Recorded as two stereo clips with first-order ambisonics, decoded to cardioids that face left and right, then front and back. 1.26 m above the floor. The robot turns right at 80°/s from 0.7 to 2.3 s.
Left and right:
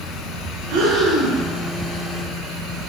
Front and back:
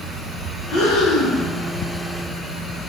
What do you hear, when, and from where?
0.7 s breathing: 60° right, 0.8 m; by 1.4 s straight ahead, 0.8 m